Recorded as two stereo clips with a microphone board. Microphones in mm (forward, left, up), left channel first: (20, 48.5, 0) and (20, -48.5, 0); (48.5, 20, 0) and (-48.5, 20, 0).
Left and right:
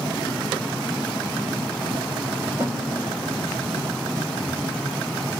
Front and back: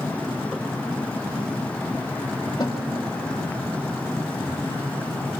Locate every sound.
2.6 s a snare drum: 30° right, 2 m